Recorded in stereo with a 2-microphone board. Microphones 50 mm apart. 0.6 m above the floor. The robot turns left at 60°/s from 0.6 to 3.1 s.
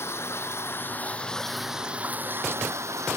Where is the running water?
55° left; by 3.2 s 95° right.